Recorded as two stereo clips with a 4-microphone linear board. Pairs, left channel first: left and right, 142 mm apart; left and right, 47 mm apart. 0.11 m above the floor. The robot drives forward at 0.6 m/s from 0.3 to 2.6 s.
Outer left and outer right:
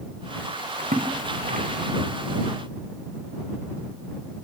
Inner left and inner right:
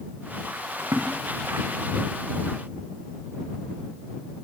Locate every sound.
0.8 s a splash: 70° right (ahead or behind), 8.5 m; by 2.1 s 65° right (ahead or behind), 8.5 m